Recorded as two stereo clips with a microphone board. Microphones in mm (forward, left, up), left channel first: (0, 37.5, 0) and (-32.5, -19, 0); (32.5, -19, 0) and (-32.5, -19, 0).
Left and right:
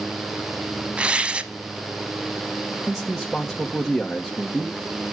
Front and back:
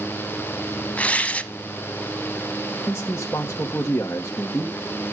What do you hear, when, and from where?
1.0 s tearing paper: 55° right, 0.8 m
2.9 s a man speaking: 30° right, 1.1 m